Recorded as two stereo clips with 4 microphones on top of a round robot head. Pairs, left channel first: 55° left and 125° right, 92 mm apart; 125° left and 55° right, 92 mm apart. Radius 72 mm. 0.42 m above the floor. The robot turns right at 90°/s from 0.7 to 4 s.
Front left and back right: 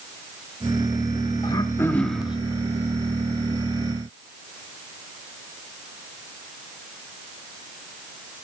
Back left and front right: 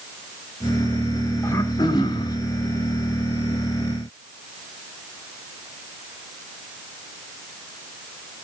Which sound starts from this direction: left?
Throat clearing, at 1.4 s.